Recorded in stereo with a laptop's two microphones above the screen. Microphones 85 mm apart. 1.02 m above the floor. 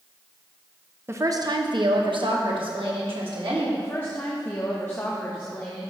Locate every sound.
1.1 s a woman speaking: 30° right (ahead or behind), 0.6 m; by 3.7 s 80° right, 2.5 m
3.8 s a woman speaking: 30° left (ahead or behind), 1.1 m